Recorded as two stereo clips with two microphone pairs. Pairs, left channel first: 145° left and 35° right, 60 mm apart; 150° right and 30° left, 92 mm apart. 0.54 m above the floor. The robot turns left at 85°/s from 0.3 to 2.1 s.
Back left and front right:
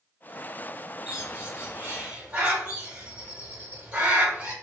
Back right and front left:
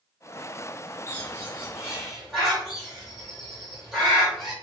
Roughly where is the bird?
Ahead left.